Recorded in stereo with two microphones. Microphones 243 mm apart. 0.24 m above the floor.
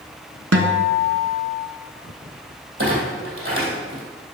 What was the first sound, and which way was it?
A guitar, 75° right (ahead or behind).